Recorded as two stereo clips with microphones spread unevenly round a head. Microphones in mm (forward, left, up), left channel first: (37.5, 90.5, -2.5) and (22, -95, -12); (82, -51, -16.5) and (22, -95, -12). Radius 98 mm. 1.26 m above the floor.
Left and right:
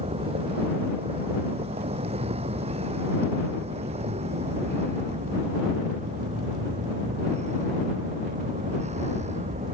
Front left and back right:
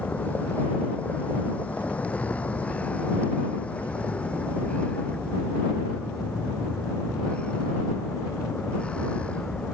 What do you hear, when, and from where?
0.0 s a vehicle: 35° right; by 9.7 s 40° right